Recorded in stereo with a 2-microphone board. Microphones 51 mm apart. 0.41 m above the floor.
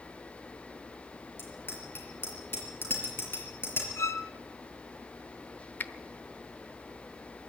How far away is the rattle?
No rattle in this recording.